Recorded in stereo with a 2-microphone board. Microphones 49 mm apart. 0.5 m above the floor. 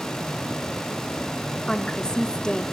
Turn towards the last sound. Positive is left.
turn(degrees=10)  # may be behind; listen again after turning